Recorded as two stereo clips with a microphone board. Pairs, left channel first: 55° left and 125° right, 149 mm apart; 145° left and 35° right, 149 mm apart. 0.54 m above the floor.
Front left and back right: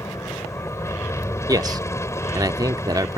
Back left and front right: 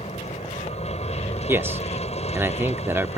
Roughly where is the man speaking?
Right.